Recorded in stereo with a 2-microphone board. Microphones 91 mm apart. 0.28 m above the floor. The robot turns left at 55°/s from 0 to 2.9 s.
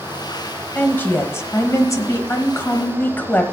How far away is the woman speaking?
About 1.1 m.